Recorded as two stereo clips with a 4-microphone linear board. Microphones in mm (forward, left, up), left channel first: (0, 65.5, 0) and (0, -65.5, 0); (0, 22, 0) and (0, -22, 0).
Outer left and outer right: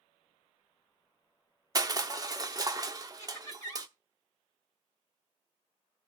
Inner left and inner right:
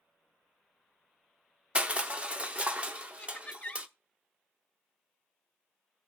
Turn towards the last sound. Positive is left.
turn(degrees=25)  # may be behind; listen again after turning